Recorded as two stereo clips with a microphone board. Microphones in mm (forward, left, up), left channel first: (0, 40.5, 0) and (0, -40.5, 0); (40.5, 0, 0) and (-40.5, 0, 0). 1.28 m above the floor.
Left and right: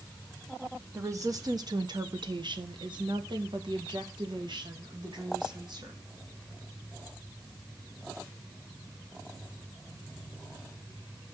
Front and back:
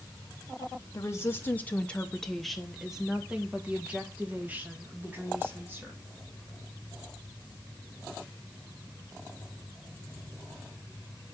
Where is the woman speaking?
45° right, 0.9 m; by 6.0 s 115° right, 2.5 m.